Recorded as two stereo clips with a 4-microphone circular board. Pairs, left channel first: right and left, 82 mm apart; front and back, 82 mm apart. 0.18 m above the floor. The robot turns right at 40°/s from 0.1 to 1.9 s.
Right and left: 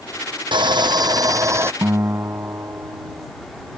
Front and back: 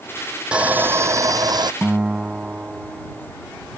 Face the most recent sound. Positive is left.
turn(degrees=110)